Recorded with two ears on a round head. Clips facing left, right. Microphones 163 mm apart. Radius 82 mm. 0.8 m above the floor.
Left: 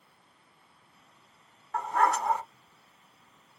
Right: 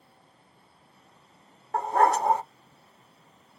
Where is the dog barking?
30° right (ahead or behind), 0.5 m.